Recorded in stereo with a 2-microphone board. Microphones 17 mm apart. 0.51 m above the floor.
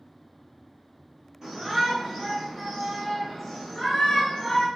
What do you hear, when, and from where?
1.4 s a shout: 30° right (ahead or behind), 1.4 m; by 4.7 s 40° left (ahead or behind), 1.5 m